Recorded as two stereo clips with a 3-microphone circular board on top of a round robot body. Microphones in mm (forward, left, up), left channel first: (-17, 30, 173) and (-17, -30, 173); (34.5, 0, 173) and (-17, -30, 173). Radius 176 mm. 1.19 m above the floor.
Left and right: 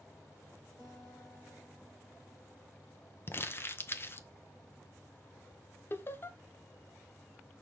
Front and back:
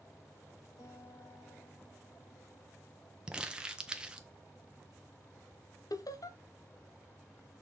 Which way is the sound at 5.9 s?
40° left.